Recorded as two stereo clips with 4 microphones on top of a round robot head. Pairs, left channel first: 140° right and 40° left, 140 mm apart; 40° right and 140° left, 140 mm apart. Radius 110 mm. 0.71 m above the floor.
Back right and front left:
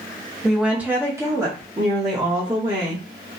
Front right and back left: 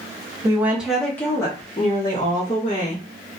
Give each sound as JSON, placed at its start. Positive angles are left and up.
{"t": 0.4, "sound": "a woman speaking", "azimuth_deg": 130, "distance_m": 0.8}